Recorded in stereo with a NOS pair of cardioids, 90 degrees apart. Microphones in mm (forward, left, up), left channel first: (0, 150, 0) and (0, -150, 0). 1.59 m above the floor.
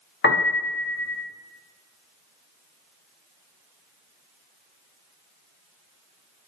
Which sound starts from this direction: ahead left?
A piano, at 0.2 s.